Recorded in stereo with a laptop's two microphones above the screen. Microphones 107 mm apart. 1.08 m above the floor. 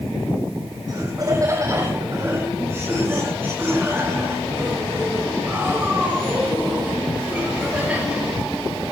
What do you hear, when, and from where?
0.9 s laughter: 35° right (ahead or behind), 5 m; by 8.2 s 10° right (ahead or behind), 15 m